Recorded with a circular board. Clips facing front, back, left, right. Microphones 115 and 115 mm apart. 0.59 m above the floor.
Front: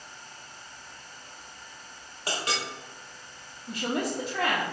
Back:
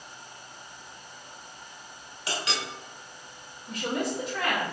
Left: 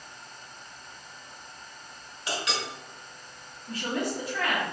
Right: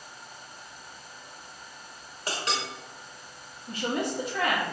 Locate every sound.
2.3 s a clink: 45° right, 1.3 m
3.7 s a woman speaking: 30° right, 0.9 m